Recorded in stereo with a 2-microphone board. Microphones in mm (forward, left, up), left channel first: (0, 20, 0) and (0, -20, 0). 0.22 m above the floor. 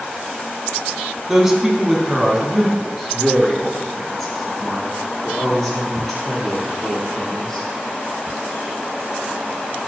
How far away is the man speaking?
About 1.7 m.